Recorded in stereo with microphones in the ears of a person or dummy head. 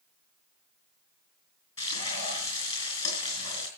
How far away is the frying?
About 4.5 m.